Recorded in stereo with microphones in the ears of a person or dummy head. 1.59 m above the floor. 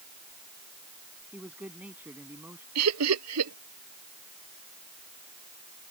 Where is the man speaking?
5° right (ahead or behind); by 2.6 s 10° right (ahead or behind).